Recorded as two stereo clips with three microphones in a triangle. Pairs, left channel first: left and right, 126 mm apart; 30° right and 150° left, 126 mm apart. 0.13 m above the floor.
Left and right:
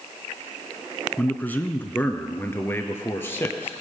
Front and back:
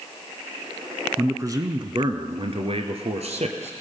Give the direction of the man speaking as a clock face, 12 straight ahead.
7 o'clock.